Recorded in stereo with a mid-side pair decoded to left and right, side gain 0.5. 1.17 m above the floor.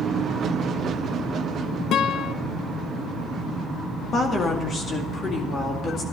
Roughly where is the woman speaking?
Ahead left.